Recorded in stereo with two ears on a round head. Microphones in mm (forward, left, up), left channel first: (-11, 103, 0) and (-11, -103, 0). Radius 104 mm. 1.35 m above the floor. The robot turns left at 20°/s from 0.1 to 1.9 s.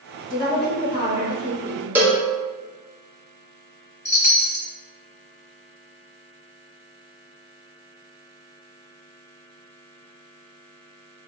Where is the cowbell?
10° right (ahead or behind), 0.7 m.